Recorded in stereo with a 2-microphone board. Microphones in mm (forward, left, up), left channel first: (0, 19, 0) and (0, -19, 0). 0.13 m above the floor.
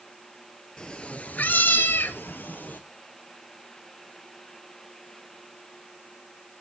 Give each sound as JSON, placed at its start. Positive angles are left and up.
{"t": 0.8, "sound": "a cat meowing", "side_deg": 25, "distance_m": 1.1}